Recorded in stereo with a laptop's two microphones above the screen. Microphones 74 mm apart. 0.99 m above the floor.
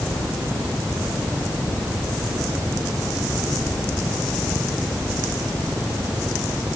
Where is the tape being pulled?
I don't hear tape being pulled.